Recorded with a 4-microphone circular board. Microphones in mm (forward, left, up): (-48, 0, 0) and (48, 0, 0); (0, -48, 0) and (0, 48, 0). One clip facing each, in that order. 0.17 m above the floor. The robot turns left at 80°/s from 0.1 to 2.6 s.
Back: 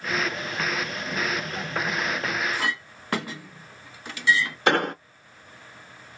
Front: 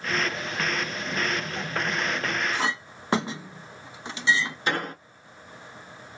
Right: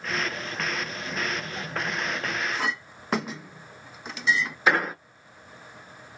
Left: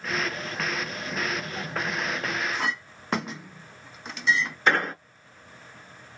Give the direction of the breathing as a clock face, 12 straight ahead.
No breathing in this recording.